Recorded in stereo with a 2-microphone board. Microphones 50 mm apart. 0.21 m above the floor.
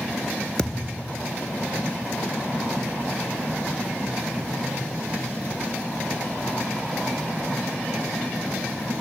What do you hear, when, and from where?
0.6 s a thud: 20° left (ahead or behind), 0.8 m